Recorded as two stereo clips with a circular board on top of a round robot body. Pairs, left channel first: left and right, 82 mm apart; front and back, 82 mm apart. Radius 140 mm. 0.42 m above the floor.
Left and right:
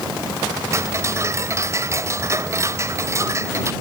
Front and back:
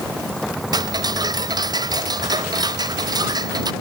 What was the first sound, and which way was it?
Ticking, 145° right.